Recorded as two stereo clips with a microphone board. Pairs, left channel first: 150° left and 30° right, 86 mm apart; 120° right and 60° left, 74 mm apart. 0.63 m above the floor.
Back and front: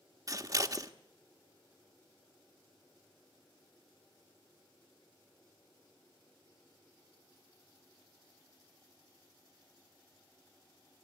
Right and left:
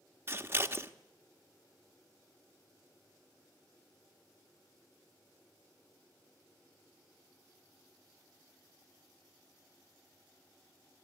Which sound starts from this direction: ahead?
Scissors, at 0.3 s.